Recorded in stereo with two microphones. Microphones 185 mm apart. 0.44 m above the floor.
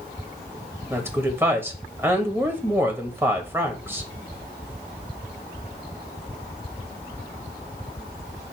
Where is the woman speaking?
15° right (ahead or behind), 1.7 m.